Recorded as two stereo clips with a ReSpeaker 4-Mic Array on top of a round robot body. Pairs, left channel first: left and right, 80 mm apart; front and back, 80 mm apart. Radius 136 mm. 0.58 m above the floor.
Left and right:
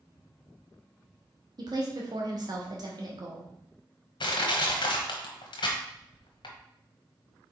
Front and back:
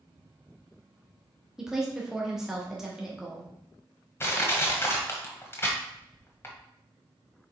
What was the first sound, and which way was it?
A woman speaking, 100° right.